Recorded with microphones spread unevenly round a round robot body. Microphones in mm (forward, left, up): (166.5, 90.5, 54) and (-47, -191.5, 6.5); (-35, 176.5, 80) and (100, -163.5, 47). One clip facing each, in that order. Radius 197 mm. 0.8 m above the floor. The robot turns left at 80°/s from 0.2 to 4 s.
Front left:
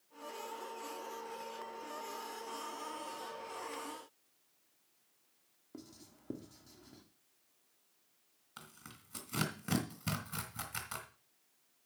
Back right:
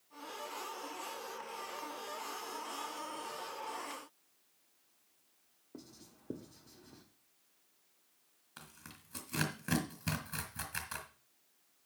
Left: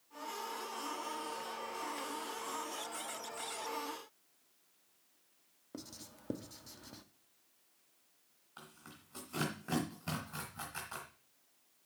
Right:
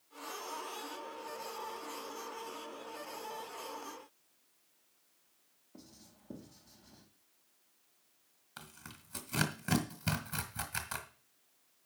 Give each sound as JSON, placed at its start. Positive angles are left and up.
{"t": 5.7, "sound": "writing", "azimuth_deg": 125, "distance_m": 1.1}
{"t": 8.6, "sound": "tearing paper", "azimuth_deg": -25, "distance_m": 2.5}